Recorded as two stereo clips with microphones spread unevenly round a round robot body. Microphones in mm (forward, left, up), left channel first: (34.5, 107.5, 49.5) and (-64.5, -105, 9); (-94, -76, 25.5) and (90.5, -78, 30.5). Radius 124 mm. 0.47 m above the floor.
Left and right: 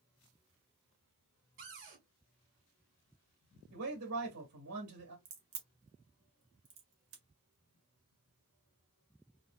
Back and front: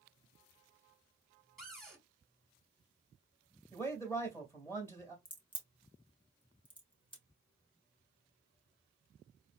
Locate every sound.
1.6 s a cupboard door: 90° right, 2.5 m
3.7 s a man speaking: 105° right, 2 m
5.2 s a crack: 120° right, 1.6 m